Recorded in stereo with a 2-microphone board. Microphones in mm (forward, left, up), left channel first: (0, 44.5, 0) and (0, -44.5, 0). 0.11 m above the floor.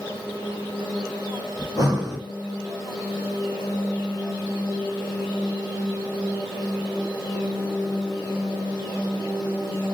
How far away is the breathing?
About 1.6 m.